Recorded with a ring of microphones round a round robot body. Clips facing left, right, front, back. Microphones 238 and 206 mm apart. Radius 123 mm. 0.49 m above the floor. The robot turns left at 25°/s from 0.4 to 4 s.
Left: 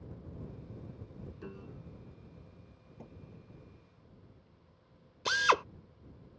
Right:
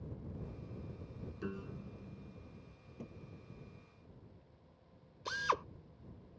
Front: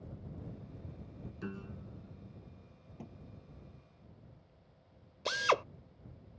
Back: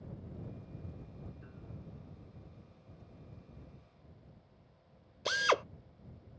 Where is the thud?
15° right; by 3.2 s 20° right.